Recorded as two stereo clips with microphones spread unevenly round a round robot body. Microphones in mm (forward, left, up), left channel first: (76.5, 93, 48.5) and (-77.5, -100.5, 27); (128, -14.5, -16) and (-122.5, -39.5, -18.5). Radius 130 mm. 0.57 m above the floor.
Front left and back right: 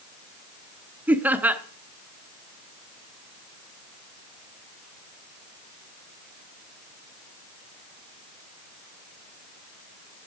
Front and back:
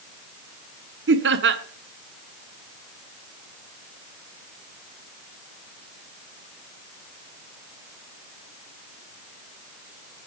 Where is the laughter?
155° left, 1.1 m.